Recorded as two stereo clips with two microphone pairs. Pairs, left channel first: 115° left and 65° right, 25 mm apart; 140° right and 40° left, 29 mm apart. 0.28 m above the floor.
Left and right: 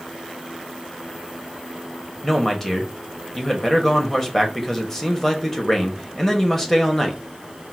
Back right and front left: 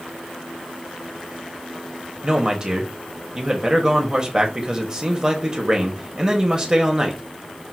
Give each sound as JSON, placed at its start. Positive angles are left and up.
{"t": 2.2, "sound": "a man speaking", "azimuth_deg": 60, "distance_m": 0.9}